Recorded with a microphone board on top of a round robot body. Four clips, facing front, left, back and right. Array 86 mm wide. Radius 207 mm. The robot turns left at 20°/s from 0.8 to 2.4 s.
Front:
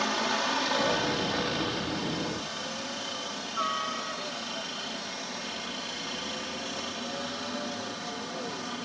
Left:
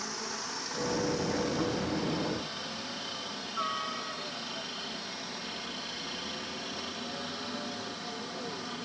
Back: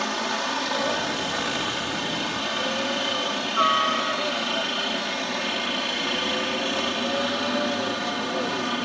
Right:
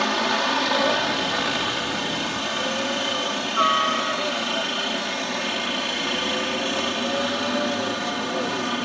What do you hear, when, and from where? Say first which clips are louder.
0.0 s a helicopter: right 17 dB, back 2 dB; 95° right; by 8.8 s 130° right